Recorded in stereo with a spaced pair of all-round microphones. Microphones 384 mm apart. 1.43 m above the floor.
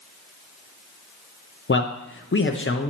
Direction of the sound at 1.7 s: 35° left (ahead or behind).